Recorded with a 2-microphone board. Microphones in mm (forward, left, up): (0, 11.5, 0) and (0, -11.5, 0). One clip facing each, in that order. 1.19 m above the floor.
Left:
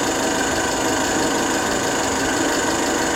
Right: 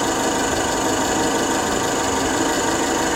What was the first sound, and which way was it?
An engine running, 35° left (ahead or behind).